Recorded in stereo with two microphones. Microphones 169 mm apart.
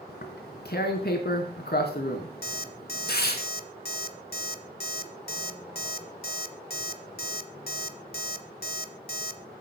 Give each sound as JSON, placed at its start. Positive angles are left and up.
{"t": 0.1, "sound": "tearing paper", "side_deg": 70, "distance_m": 4.0}
{"t": 2.4, "sound": "an alarm clock", "side_deg": 65, "distance_m": 1.5}